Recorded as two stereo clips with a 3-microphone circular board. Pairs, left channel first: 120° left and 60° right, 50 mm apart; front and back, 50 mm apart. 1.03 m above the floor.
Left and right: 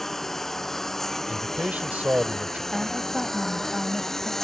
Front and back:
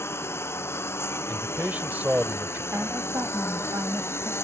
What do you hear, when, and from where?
0.0 s a lawn mower: 35° left
1.3 s a man speaking: 125° right
2.7 s a woman speaking: 150° right